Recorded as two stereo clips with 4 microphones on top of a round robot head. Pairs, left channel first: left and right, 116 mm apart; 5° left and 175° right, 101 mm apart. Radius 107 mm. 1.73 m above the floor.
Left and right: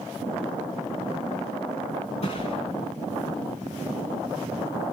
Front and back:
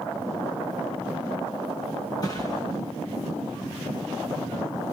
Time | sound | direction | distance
2.2 | a thud | 60° left | 7 m